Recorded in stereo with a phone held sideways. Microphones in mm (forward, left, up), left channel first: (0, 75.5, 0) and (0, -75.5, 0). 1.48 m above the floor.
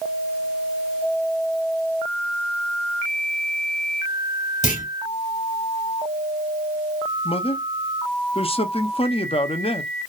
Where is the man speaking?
40° left (ahead or behind), 0.7 m.